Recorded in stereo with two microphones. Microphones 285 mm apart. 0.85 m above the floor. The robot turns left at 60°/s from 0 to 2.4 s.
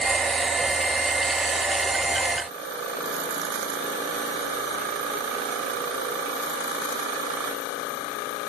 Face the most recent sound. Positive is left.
No sound to turn to.